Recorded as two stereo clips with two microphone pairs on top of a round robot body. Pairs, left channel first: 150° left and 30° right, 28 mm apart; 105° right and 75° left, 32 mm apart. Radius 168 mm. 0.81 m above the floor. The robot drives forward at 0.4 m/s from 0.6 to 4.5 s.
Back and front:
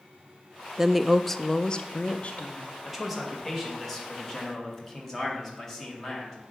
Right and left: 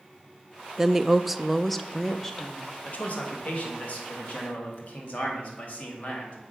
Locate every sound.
0.8 s a woman speaking: 20° right, 0.5 m; by 2.8 s 170° right, 0.8 m
2.9 s a man speaking: 110° right, 1.8 m; by 6.4 s 130° right, 2 m